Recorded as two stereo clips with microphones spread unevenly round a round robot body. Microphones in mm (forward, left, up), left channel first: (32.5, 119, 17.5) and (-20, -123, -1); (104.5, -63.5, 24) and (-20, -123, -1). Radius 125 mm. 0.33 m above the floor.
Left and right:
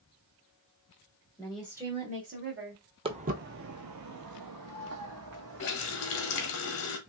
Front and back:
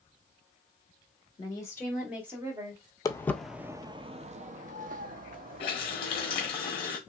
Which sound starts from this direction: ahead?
A woman speaking, at 1.4 s.